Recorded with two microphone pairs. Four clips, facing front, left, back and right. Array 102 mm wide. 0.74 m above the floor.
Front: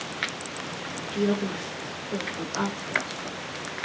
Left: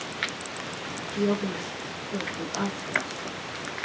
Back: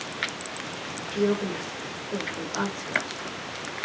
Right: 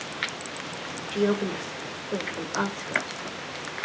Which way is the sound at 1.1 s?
100° right.